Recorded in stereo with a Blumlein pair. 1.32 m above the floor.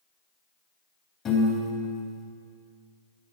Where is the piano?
25° left, 3.5 m.